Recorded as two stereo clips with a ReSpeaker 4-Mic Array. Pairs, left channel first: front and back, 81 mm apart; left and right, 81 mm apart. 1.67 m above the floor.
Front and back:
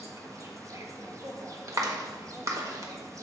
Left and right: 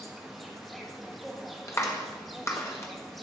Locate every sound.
0.0 s an insect: straight behind, 1.1 m
1.7 s a clap: 140° left, 1.2 m